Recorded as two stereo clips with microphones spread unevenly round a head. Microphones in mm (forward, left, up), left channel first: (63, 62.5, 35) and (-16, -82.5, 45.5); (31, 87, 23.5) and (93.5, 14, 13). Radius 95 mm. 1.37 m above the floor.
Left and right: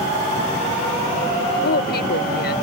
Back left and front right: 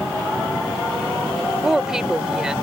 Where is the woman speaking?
35° left.